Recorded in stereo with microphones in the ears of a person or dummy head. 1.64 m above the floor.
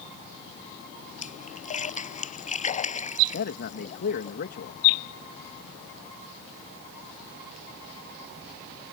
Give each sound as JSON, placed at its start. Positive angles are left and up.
{"t": 1.2, "sound": "a splash", "side_deg": 40}
{"t": 3.3, "sound": "a man speaking", "side_deg": 55}